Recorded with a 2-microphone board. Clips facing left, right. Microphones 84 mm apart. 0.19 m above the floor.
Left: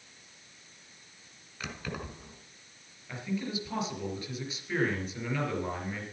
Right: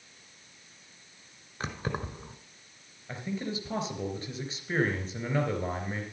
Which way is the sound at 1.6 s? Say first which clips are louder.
Right 4 dB; 35° right (ahead or behind).